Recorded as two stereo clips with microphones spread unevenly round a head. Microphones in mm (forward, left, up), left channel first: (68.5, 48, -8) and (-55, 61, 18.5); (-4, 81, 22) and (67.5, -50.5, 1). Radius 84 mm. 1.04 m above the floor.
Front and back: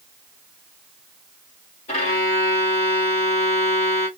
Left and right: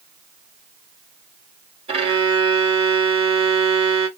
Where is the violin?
20° right, 1.5 m.